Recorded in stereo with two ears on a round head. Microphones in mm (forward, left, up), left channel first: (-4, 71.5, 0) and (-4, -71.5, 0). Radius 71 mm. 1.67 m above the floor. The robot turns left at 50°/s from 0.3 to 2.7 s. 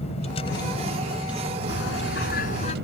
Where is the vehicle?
40° left; by 2.9 s 80° right.